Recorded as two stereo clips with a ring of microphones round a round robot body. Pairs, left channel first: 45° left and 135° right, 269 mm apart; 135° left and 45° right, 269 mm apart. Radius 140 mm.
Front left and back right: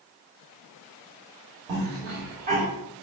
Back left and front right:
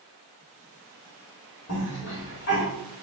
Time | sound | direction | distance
1.7 | a cough | 175° left | 1.7 m